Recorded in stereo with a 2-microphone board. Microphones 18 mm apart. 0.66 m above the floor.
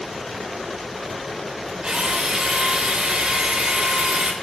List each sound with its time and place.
1.8 s a drill: 50° right (ahead or behind), 2.5 m